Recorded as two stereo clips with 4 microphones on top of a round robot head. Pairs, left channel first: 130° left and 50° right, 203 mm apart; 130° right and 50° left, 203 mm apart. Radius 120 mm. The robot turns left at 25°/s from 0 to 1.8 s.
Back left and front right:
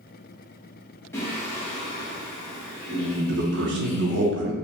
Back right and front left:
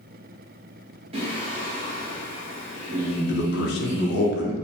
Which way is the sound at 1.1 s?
65° left.